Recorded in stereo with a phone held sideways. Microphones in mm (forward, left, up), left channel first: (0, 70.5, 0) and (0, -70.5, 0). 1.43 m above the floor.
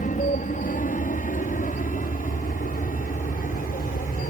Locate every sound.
0.0 s an aircraft: 60° left (ahead or behind); by 4.3 s 65° left (ahead or behind)